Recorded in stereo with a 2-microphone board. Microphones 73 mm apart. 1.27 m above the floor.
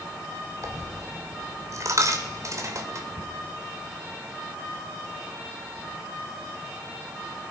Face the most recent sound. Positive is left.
turn(degrees=-45)  # may be behind; listen again after turning